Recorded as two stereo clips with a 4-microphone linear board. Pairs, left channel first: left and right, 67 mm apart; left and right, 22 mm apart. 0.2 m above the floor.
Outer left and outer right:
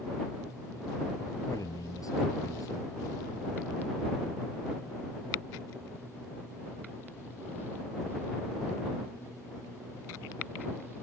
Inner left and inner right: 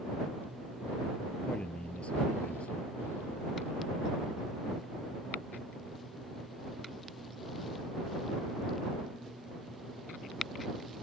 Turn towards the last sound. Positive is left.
turn(degrees=65)  # may be behind; listen again after turning